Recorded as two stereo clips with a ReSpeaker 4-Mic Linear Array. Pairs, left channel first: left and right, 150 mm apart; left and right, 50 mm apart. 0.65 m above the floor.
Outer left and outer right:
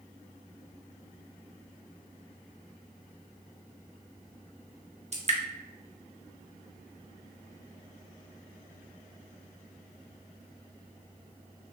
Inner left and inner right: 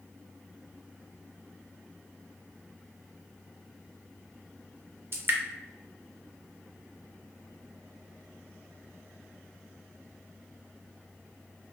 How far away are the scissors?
I don't hear scissors.